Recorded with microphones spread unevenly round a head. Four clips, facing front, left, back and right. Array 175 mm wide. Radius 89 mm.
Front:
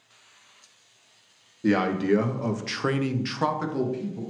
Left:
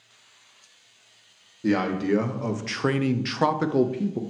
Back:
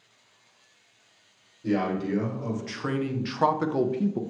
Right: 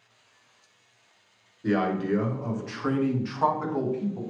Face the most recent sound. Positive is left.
turn(degrees=120)